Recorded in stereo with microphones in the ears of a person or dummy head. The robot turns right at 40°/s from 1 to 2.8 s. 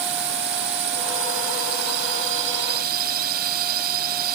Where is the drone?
125° right; by 4.3 s 50° right.